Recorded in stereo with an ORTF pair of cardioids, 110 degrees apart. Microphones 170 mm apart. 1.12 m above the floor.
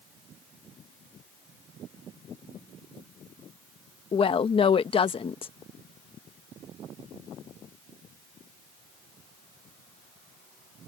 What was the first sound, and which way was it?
A woman speaking, 30° left.